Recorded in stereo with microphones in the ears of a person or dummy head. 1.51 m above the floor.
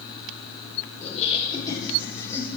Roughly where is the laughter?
Left.